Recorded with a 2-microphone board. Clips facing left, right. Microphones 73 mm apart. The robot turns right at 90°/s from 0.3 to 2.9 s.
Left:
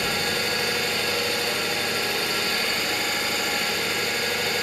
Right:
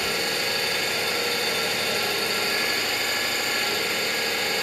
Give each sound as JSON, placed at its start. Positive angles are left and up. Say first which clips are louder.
{"t": 0.0, "sound": "an engine running", "louder": "left 1 dB", "azimuth_deg": 130, "distance_m": 1.1}